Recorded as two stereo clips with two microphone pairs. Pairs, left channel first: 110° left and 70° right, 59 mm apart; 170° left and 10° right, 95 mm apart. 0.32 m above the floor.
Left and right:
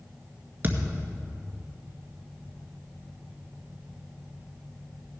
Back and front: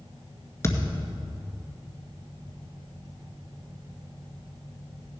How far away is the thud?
About 1.6 m.